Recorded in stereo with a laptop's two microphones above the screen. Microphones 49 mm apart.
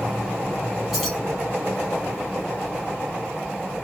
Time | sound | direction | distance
0.9 | keys jangling | centre (ahead or behind) | 1.1 m